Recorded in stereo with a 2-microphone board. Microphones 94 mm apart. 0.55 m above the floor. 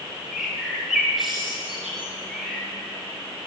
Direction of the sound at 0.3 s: Centre (ahead or behind).